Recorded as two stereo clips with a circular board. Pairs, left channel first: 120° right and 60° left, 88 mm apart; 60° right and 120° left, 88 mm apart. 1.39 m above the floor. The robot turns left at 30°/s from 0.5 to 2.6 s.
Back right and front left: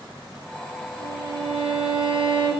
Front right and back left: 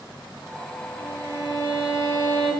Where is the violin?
130° right, 4 m; by 2.5 s 175° right, 4 m.